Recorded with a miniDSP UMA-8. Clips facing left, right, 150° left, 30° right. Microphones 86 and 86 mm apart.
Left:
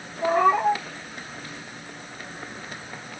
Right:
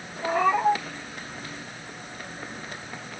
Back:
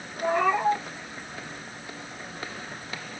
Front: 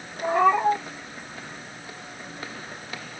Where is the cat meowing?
40° left, 2 m.